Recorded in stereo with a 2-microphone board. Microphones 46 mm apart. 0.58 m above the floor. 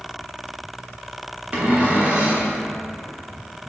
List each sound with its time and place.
1.5 s a cupboard door: 35° right (ahead or behind), 1.2 m